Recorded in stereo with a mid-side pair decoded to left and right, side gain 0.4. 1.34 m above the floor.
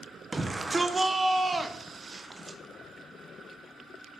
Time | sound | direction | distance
0.3 | a shout | 25° right | 0.6 m